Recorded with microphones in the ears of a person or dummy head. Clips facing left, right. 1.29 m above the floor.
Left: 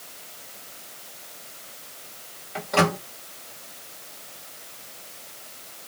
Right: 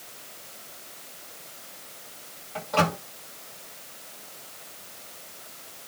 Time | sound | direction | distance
2.5 | a microwave | 35° left (ahead or behind) | 1.3 m